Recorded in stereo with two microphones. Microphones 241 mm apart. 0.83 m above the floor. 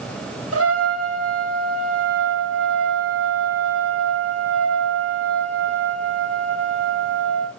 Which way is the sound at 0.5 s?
65° right (ahead or behind).